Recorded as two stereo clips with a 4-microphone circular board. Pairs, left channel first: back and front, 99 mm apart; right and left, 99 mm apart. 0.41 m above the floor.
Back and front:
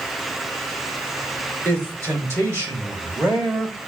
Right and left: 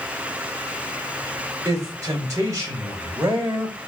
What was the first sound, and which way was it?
A man speaking, 50° left.